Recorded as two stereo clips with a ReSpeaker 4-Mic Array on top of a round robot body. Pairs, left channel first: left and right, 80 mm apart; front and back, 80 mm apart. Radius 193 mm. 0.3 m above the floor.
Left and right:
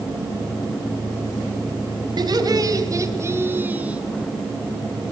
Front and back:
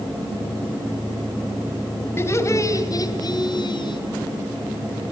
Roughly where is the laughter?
Ahead right.